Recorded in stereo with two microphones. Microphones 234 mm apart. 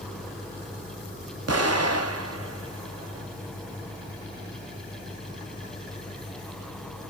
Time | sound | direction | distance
1.5 | an explosion | 85° right | 0.5 m